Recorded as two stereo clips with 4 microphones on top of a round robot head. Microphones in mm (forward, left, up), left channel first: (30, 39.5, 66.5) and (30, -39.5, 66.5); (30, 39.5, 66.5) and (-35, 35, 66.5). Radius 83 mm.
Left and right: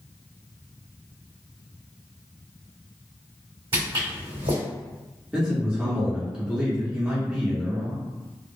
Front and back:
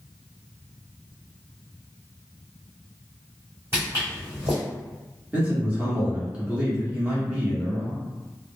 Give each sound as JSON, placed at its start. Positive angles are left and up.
{"t": 3.7, "sound": "footsteps", "azimuth_deg": -115, "distance_m": 1.9}
{"t": 5.3, "sound": "a man speaking", "azimuth_deg": -145, "distance_m": 1.2}